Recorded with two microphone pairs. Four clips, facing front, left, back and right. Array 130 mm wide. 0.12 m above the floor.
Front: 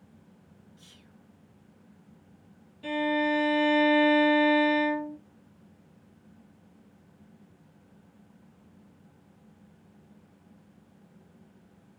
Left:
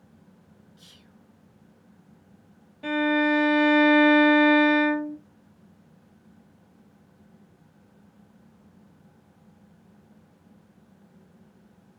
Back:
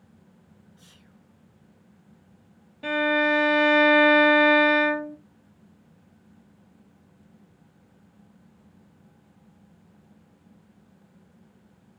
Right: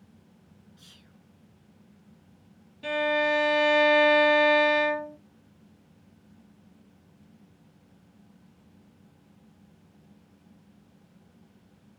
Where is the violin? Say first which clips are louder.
Left 3 dB, back 4 dB; 170° left, 0.7 m.